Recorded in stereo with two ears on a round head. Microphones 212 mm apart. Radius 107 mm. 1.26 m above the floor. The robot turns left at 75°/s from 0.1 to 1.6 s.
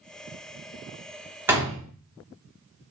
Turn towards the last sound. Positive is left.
turn(degrees=-15)  # may be behind; listen again after turning